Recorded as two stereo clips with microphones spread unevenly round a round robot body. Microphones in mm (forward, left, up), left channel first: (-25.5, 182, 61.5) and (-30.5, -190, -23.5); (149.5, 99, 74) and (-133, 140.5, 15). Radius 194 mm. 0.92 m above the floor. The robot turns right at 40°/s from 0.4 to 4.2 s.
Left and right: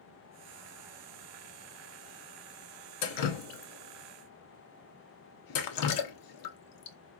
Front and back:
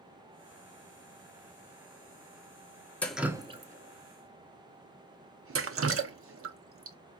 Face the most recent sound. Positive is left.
turn(degrees=125)